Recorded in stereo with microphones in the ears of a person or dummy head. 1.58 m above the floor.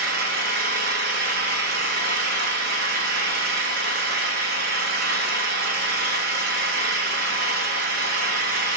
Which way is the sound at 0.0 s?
65° right (ahead or behind).